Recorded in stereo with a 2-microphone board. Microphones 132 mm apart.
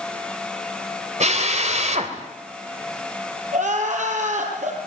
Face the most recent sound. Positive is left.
turn(degrees=-80)